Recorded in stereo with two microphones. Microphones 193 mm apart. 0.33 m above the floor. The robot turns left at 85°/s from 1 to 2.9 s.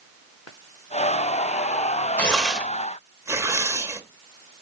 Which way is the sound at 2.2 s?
10° left (ahead or behind).